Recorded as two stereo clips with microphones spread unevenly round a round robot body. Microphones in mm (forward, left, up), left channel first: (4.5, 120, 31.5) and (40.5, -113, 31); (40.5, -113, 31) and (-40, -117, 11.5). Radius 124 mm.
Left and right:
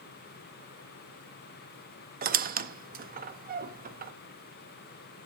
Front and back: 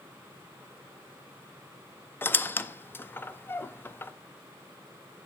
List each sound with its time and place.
2.2 s a squeak: 65° right, 0.6 m